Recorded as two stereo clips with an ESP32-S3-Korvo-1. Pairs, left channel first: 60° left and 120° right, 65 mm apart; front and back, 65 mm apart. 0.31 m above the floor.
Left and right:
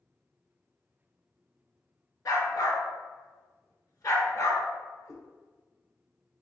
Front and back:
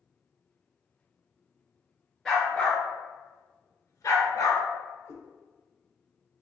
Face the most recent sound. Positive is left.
turn(degrees=40)